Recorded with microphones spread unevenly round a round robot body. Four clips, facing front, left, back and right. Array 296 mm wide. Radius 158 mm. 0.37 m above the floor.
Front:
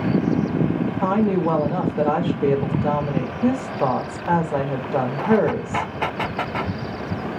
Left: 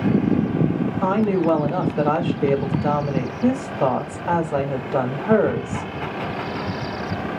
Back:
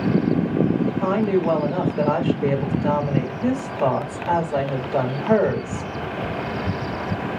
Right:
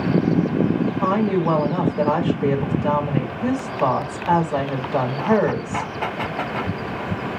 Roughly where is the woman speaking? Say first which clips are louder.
Left 2 dB, front 2 dB; ahead left.